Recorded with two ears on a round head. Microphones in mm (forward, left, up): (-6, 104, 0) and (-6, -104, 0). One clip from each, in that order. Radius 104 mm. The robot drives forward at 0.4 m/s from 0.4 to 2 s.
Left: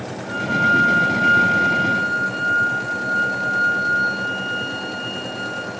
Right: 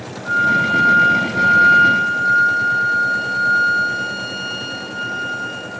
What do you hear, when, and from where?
0.2 s a flute: 40° right (ahead or behind), 4 m; by 5.7 s 50° right (ahead or behind), 3.5 m